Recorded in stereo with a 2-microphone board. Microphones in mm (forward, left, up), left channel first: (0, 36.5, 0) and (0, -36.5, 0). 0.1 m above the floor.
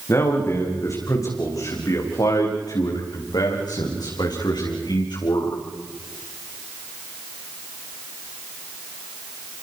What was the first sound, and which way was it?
A man speaking, 40° left (ahead or behind).